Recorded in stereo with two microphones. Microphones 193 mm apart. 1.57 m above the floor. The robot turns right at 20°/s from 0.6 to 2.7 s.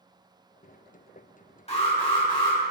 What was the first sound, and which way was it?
An alarm, 30° left (ahead or behind).